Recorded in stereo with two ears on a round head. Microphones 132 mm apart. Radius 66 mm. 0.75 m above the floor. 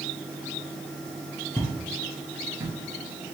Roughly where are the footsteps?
Left.